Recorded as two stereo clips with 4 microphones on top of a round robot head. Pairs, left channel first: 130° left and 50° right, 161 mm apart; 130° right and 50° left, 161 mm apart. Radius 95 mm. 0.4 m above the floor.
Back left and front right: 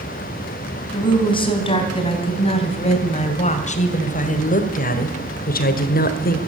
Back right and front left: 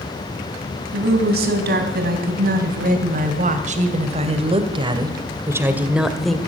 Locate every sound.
0.9 s a woman speaking: 70° left, 3 m; by 6.4 s 140° left, 1.4 m